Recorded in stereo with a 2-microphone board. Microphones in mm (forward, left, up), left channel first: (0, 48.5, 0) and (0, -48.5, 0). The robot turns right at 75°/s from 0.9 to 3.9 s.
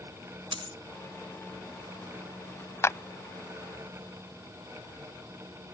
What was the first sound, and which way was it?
A dropped coin, 65° right (ahead or behind).